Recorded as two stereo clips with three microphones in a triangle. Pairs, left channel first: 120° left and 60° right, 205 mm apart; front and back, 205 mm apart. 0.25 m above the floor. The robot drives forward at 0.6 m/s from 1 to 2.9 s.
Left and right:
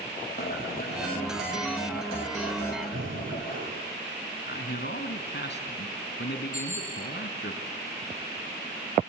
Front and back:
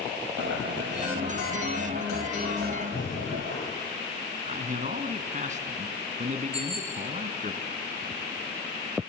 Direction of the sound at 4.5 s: 135° left.